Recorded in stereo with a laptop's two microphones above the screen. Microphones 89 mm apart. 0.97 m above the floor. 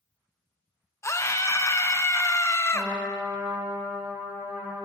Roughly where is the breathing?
I don't hear breathing.